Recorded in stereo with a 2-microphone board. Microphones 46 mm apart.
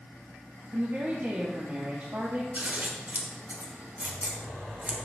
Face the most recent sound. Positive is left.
turn(degrees=-40)  # may be behind; listen again after turning